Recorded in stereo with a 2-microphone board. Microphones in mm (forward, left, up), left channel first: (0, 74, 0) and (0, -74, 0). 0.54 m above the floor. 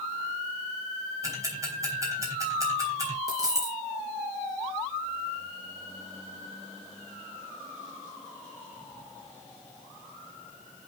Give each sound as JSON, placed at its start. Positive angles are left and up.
{"t": 1.2, "sound": "ticking", "side_deg": -25, "distance_m": 3.5}
{"t": 3.3, "sound": "a dropped coin", "side_deg": -25, "distance_m": 4.0}